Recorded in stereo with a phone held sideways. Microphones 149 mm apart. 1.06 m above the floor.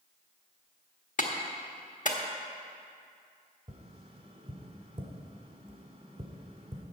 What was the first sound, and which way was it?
A clap, 60° left (ahead or behind).